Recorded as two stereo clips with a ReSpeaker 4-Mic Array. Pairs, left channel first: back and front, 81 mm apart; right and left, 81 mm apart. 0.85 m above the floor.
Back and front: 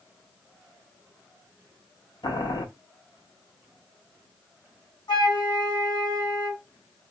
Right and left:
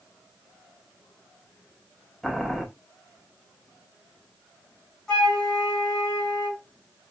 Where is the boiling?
175° right, 0.9 m.